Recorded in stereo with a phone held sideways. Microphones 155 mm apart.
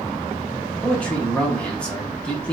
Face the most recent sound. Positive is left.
turn(degrees=5)  # may be behind; listen again after turning